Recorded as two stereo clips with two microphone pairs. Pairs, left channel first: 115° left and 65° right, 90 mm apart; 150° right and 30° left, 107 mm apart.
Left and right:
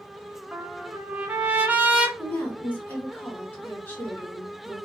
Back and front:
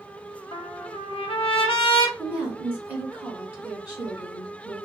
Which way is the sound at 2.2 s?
70° left.